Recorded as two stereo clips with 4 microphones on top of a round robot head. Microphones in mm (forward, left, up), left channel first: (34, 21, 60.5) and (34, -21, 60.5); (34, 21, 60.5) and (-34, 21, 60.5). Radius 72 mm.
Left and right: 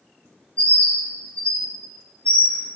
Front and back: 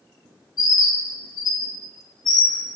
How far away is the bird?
About 0.5 m.